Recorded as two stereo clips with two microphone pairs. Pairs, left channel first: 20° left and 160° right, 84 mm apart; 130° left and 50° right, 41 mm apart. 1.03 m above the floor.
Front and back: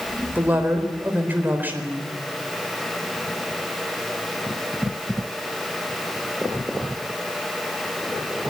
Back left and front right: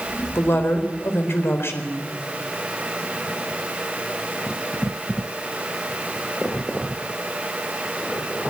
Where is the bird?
No bird in this recording.